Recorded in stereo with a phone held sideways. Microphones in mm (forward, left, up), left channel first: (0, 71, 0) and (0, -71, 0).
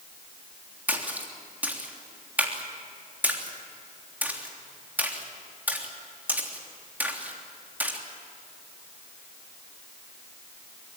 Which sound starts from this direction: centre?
A splash, at 0.9 s.